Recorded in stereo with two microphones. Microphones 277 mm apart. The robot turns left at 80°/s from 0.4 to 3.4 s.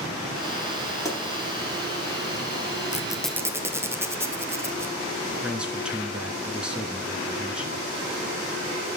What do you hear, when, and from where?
1.1 s a pop: 10° left (ahead or behind), 3.5 m; by 1.2 s centre (ahead or behind), 3.5 m
2.9 s a squeak: 25° left (ahead or behind), 1.0 m; by 5.0 s 10° right (ahead or behind), 1.0 m
5.4 s a man speaking: 5° right (ahead or behind), 1.2 m